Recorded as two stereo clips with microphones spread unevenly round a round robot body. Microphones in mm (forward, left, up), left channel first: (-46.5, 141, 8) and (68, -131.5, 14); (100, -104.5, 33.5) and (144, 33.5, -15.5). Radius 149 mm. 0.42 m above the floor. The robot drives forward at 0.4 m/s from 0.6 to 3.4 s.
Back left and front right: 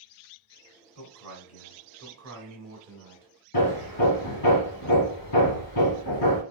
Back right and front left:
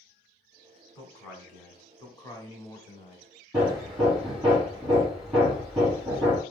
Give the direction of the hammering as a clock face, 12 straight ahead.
7 o'clock.